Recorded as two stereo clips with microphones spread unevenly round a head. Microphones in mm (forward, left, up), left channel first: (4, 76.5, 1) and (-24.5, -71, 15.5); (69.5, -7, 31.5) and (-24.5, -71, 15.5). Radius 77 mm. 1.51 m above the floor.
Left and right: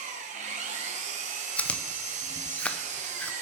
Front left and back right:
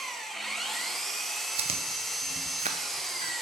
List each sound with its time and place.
0.0 s an engine running: 55° right, 1.4 m
1.6 s chewing: 160° left, 0.8 m